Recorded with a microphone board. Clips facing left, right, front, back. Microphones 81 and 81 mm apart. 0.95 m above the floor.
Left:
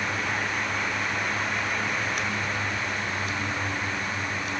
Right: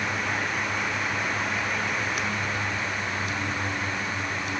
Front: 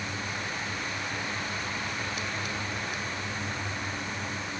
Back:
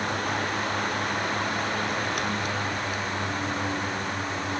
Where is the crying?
No crying in this recording.